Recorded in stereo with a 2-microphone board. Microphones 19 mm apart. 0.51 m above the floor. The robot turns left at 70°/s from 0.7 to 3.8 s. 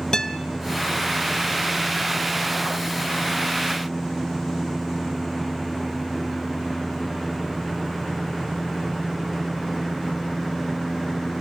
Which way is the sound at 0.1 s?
30° left (ahead or behind).